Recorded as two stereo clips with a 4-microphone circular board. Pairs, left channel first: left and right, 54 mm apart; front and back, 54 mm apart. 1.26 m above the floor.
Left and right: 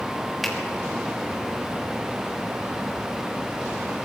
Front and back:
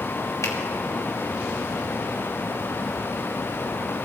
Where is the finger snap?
5° left, 2.5 m.